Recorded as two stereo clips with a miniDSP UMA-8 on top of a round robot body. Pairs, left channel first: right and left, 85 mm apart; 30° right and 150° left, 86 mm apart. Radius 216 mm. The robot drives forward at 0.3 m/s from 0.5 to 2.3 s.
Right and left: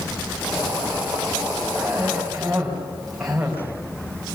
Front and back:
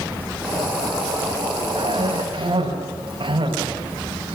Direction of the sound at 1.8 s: 175° left.